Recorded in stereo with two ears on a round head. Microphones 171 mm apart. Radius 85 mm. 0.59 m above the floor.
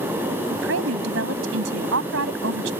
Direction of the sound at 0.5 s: 75° right (ahead or behind).